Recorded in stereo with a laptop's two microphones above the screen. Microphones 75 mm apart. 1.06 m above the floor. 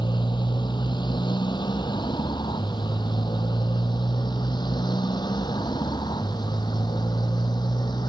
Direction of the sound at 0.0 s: 80° left.